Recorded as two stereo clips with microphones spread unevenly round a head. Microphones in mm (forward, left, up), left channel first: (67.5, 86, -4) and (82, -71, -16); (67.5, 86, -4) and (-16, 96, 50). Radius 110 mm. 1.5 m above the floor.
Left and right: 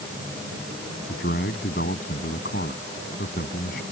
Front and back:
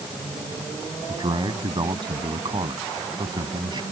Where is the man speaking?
145° left.